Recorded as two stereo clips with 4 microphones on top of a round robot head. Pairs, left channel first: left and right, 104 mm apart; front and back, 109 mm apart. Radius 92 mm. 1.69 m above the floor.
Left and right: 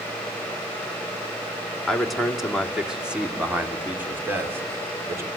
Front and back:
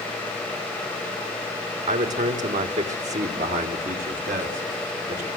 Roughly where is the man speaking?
Behind.